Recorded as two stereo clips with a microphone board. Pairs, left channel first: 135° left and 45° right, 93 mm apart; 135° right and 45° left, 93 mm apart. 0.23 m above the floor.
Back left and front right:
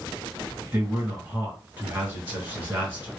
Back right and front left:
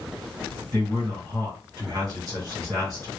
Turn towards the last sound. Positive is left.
turn(degrees=15)